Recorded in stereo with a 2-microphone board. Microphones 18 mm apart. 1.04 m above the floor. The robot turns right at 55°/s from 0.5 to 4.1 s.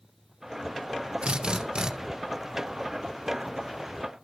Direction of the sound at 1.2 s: 85° right.